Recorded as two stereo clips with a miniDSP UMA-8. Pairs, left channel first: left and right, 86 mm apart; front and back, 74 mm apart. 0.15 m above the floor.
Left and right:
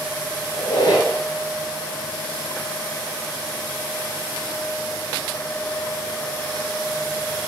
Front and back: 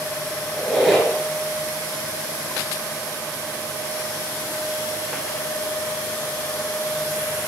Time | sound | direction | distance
0.5 | a squeak | 90° left | 0.7 m